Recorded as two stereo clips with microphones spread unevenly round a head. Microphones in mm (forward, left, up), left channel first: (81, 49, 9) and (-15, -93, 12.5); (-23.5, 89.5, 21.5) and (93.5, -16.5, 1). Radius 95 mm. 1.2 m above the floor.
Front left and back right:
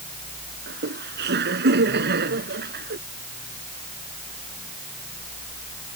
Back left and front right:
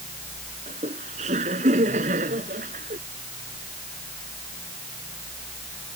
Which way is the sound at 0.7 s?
100° right.